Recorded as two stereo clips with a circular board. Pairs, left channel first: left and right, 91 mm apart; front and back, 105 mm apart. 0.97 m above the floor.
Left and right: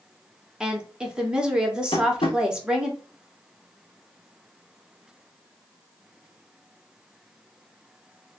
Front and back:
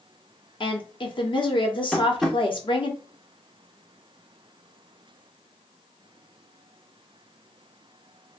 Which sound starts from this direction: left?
Tapping, at 1.9 s.